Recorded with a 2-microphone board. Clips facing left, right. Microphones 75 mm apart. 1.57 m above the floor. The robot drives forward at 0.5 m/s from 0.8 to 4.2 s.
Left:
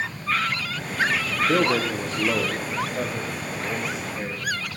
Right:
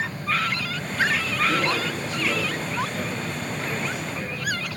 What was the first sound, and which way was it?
A man speaking, 45° left (ahead or behind).